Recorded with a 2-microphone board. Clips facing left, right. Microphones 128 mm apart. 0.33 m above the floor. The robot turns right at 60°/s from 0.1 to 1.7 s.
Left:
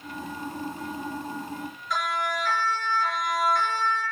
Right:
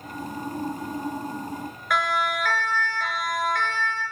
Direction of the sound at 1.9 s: 75° right (ahead or behind).